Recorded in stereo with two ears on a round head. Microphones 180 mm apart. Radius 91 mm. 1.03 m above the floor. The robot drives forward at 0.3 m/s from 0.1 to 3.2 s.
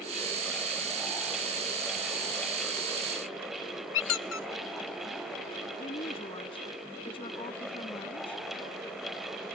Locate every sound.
3.9 s a squeak: 60° left (ahead or behind)
5.8 s a woman speaking: 25° left (ahead or behind)